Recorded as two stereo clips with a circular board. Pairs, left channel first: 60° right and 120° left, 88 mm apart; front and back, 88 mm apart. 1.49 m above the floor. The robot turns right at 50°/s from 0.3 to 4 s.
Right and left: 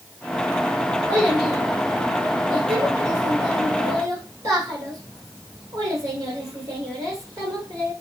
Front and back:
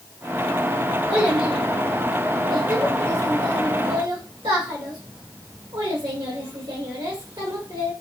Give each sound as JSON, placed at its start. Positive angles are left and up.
{"t": 1.1, "sound": "a child speaking", "azimuth_deg": 25, "distance_m": 2.0}